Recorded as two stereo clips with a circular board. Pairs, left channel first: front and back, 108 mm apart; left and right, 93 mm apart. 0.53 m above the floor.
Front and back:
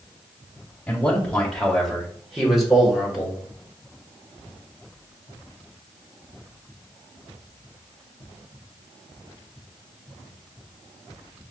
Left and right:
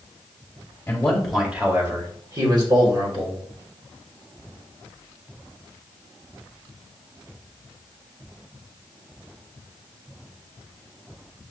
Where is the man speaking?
55° left, 1.1 m; by 3.4 s 100° right, 2 m.